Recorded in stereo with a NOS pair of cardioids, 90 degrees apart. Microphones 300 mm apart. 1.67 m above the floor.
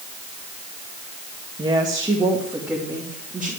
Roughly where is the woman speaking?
Ahead.